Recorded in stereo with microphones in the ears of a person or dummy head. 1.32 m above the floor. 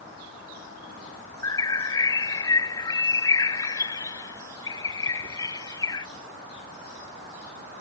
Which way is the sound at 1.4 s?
20° left (ahead or behind).